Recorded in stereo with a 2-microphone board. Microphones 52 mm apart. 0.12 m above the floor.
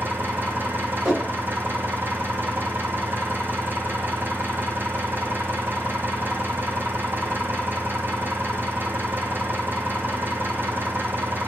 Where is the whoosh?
10° right (ahead or behind), 7.5 m.